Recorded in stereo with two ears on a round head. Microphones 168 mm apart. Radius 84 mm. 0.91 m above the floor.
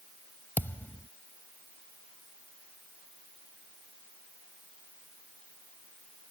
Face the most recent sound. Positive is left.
turn(degrees=10)  # may be behind; listen again after turning